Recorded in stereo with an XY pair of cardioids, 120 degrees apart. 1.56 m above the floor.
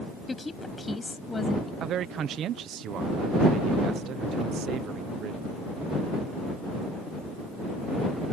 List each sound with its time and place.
0.3 s a woman speaking: 20° left
1.8 s a man speaking: 60° right